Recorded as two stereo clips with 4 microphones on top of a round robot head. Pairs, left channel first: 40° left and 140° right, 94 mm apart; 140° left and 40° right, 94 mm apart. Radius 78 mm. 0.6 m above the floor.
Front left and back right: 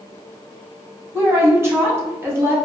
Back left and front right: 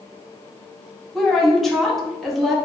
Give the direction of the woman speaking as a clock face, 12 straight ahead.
4 o'clock.